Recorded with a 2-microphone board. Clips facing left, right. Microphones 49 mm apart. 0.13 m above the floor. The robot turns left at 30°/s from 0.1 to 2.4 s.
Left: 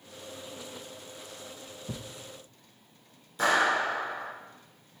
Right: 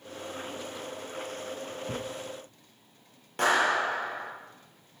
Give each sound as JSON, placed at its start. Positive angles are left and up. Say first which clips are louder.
{"t": 1.9, "sound": "a thud", "louder": "right 4 dB", "side_deg": 10, "distance_m": 0.5}
{"t": 3.4, "sound": "a clap", "louder": "even", "side_deg": -65, "distance_m": 3.0}